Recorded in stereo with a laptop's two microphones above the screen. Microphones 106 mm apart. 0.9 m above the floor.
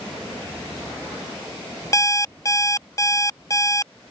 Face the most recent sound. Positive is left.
turn(degrees=35)  # may be behind; listen again after turning